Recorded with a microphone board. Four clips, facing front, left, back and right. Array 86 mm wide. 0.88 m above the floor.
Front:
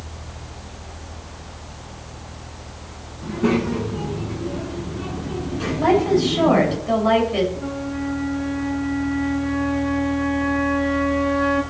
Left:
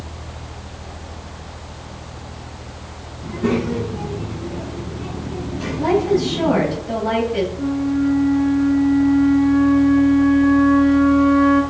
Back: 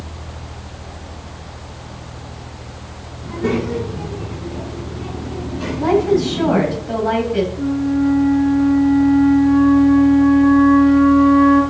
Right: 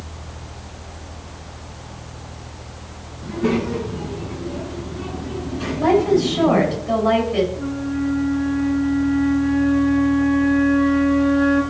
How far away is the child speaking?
About 6.5 m.